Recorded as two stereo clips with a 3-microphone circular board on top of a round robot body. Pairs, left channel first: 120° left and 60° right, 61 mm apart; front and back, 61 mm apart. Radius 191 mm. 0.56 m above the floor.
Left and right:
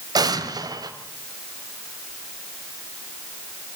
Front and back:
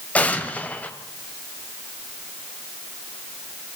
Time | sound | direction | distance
0.1 | an explosion | 70° right | 2 m